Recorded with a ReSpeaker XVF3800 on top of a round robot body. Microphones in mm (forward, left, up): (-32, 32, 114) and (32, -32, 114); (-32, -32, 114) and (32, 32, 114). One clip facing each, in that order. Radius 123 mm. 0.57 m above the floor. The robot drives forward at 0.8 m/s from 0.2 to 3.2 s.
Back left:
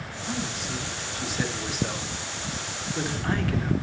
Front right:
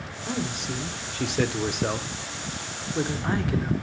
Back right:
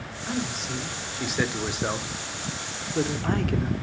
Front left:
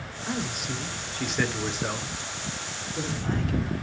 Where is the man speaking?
35° right, 2 m; by 3.7 s 115° right, 1.5 m.